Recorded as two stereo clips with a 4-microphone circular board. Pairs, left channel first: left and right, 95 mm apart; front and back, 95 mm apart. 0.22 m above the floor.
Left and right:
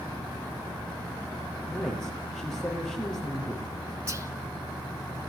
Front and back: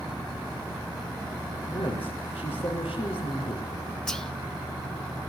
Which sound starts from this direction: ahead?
A woman speaking, at 1.7 s.